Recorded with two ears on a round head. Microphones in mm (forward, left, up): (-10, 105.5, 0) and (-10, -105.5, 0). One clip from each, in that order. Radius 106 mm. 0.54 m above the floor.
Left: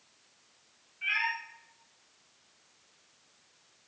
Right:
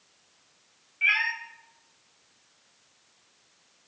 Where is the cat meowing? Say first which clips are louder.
Right 6 dB; 70° right (ahead or behind), 2.5 m.